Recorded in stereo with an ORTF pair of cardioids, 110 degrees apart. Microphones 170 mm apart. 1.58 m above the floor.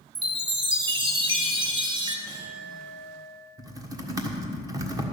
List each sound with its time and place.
0.1 s a chime: 30° right, 1.6 m
2.3 s a clink: 30° right, 4 m
3.6 s typing on a keyboard: 20° right, 1.5 m